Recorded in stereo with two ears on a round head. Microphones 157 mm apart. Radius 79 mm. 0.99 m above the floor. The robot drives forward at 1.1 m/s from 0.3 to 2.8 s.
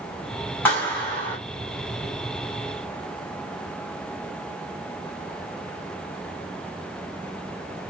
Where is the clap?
10° left (ahead or behind), 5.5 m.